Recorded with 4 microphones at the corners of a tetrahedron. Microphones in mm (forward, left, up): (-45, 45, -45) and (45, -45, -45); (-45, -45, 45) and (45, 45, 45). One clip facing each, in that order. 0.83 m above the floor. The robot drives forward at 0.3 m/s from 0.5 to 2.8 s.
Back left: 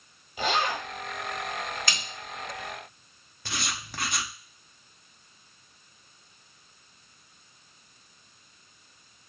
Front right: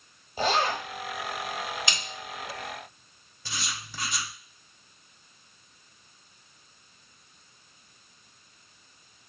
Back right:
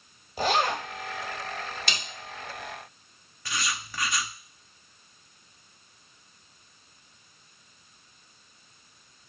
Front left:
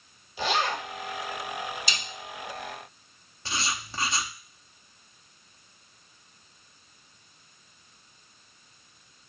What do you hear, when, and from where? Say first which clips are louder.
0.4 s a zipper: front right 2 dB, back right 2 dB; 95° right, 1.0 m; by 0.8 s 100° right, 1.0 m
1.9 s a snare drum: even, back right 1 dB; 115° right, 1.2 m
3.5 s writing: back left 3 dB, front left 1 dB; 105° left, 0.5 m